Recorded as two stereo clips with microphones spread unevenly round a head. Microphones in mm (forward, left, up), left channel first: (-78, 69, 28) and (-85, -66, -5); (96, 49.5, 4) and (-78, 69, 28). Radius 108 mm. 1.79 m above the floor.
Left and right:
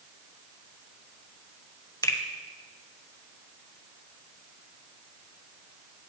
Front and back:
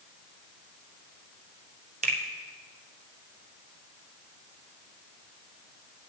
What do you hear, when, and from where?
2.0 s a finger snap: 140° left, 0.9 m